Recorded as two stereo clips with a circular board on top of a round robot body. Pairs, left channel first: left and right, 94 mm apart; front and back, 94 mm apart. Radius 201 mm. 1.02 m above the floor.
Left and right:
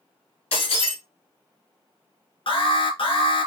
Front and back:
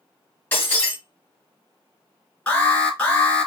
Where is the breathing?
No breathing in this recording.